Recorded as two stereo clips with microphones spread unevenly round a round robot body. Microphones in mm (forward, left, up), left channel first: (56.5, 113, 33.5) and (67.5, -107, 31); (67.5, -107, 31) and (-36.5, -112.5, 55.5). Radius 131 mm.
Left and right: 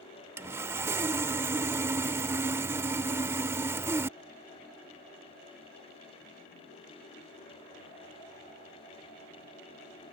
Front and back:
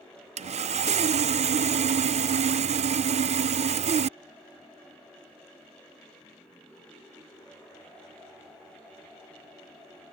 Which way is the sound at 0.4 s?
165° right.